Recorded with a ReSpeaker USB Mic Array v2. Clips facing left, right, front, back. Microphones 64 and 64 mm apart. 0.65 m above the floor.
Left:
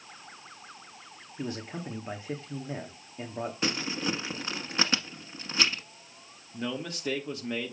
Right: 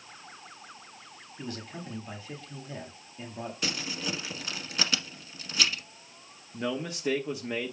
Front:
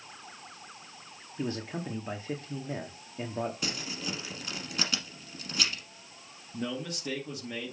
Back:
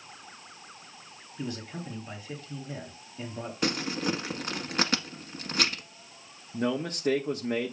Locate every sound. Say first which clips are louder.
1.4 s a man speaking: left 4 dB, front 2 dB; 40° left, 1.1 m
3.6 s crumpling: left 4 dB, back 8 dB; 145° left, 1.2 m
6.5 s a man speaking: right 2 dB, back 6 dB; 170° right, 0.7 m